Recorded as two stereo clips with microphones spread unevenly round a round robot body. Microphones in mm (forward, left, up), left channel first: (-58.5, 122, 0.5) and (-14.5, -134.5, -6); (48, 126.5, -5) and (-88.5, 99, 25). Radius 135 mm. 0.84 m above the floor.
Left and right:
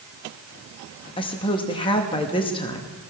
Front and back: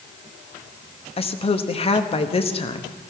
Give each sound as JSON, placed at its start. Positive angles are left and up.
{"t": 1.2, "sound": "a woman speaking", "azimuth_deg": 30, "distance_m": 1.0}